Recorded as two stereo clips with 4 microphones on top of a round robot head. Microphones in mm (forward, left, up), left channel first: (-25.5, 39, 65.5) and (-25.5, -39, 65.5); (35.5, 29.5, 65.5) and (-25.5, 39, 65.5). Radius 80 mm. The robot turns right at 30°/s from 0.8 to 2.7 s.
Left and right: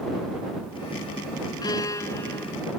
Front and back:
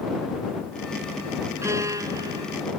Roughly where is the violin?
Behind left.